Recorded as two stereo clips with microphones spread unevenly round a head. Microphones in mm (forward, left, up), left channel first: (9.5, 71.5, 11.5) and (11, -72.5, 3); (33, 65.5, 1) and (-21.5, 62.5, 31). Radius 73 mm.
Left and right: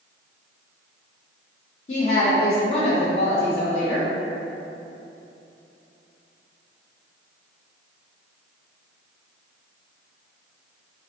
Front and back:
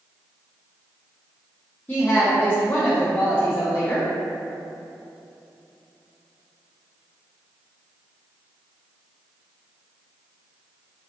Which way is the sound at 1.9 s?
45° left.